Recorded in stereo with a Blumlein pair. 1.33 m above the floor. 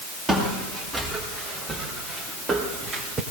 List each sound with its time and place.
0.3 s footsteps: 10° right, 6.5 m; by 3.2 s 15° right, 3.5 m